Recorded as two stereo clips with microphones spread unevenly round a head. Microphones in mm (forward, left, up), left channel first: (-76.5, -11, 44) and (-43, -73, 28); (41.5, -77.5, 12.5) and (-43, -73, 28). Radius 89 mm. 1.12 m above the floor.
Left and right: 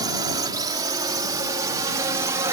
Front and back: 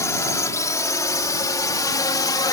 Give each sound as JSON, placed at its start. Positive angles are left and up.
{"t": 0.0, "sound": "a drone", "azimuth_deg": -55}